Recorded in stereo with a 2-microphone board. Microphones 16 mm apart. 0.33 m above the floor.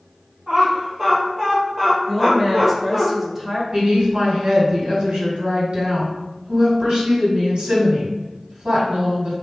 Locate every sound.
0.5 s laughter: 25° right (ahead or behind), 1.9 m; by 3.1 s 5° left (ahead or behind), 1.5 m
2.1 s a woman speaking: 10° right (ahead or behind), 1.0 m
3.7 s a woman speaking: 60° right (ahead or behind), 1.9 m